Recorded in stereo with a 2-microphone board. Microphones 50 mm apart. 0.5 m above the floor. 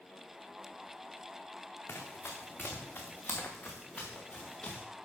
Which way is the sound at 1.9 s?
50° left (ahead or behind).